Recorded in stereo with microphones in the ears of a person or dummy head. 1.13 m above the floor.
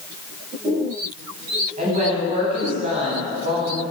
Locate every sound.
1.8 s a woman speaking: 35° right (ahead or behind), 7.5 m